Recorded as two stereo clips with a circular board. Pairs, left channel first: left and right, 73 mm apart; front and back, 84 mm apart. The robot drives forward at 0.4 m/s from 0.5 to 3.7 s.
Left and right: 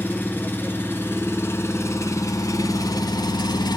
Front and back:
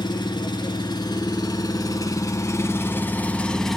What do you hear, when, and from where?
0.0 s an engine running: 30° left, 1.5 m; by 3.8 s 85° left, 0.7 m